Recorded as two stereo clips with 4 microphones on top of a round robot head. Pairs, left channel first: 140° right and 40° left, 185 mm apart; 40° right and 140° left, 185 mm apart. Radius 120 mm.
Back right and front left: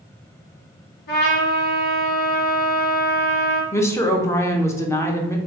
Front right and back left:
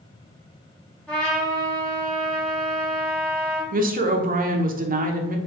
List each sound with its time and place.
1.1 s a trumpet: 125° right, 1.7 m
3.7 s a woman speaking: 150° left, 0.7 m